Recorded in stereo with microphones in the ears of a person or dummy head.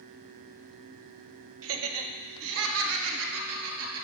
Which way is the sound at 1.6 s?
75° right (ahead or behind).